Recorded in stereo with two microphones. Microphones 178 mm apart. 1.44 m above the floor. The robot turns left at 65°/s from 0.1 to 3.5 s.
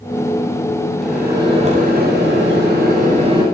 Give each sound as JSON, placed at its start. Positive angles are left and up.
{"t": 1.0, "sound": "a microwave", "azimuth_deg": 5, "distance_m": 8.0}